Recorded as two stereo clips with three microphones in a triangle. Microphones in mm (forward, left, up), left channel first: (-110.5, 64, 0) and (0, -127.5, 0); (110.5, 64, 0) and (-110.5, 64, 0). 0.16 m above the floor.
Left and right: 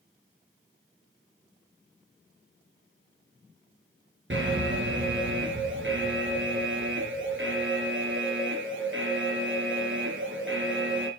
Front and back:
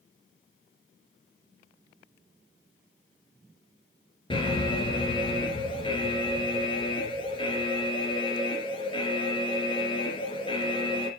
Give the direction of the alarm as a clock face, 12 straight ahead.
2 o'clock.